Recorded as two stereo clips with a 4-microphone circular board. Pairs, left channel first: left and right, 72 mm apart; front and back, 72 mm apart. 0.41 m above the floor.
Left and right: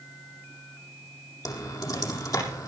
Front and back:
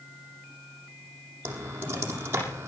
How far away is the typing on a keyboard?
About 7 m.